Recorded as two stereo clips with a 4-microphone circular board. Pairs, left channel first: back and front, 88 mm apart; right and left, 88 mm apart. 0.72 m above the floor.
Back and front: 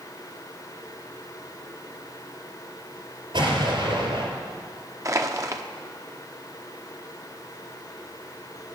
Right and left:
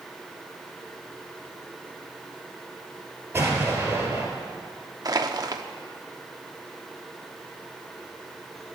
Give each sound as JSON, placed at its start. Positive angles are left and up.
{"t": 3.3, "sound": "an explosion", "azimuth_deg": 25, "distance_m": 3.5}
{"t": 5.0, "sound": "crushing", "azimuth_deg": 50, "distance_m": 0.9}